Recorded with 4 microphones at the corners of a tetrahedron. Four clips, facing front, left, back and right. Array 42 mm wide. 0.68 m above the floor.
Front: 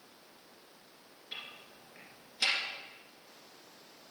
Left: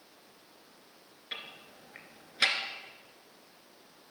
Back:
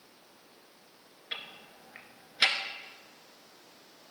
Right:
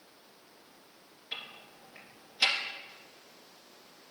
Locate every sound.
1.3 s ticking: 145° left, 1.5 m